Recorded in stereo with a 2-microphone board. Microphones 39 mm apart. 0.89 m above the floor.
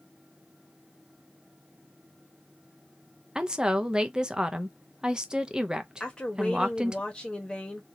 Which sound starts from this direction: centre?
A woman speaking, at 3.4 s.